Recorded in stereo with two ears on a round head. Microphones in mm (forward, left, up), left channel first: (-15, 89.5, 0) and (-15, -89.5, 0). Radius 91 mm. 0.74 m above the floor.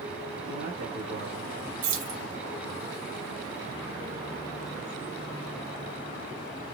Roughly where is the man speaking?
Right.